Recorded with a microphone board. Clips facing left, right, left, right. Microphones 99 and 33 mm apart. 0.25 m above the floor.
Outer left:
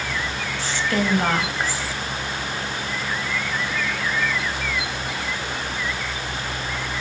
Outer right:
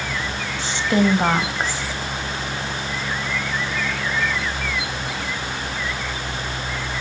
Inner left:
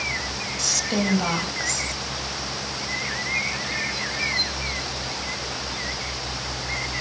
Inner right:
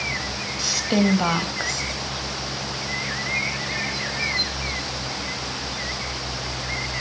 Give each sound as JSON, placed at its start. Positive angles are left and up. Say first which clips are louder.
{"t": 0.6, "sound": "a woman speaking", "louder": "outer right 5 dB, inner right 4 dB", "side_deg": -20, "distance_m": 1.0}